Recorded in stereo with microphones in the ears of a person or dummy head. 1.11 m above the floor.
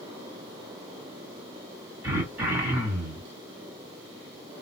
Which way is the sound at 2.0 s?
10° right (ahead or behind).